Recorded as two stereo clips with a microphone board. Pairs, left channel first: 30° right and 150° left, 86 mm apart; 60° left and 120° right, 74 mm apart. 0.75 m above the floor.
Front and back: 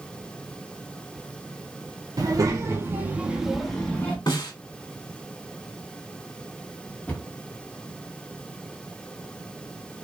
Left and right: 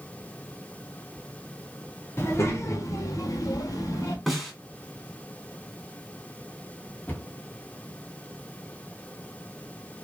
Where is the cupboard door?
20° left, 1.2 m.